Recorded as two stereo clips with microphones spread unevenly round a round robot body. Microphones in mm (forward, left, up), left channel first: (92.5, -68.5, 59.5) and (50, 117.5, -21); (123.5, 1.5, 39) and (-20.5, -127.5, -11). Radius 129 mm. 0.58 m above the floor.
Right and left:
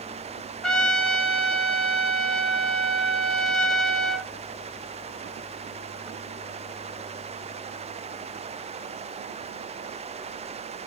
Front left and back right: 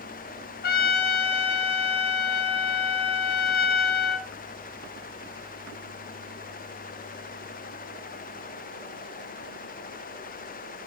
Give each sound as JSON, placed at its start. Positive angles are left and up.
{"t": 0.6, "sound": "a trumpet", "azimuth_deg": 5, "distance_m": 0.6}